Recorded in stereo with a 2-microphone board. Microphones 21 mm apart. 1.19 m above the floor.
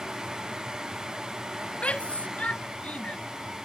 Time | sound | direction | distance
1.8 | a shout | 70° left (ahead or behind) | ?